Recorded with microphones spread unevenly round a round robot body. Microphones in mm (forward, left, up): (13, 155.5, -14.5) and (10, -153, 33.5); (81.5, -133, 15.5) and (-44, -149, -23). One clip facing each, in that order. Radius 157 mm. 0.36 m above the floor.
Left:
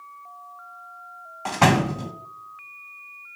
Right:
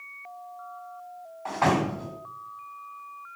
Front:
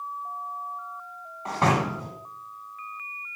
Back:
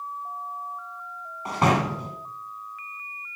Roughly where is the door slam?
Left.